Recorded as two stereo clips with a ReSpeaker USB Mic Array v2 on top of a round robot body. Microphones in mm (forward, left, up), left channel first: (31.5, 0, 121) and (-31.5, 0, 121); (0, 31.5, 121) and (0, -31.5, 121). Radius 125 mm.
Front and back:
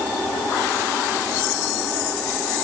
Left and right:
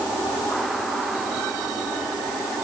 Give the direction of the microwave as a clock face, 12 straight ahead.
I don't hear a microwave.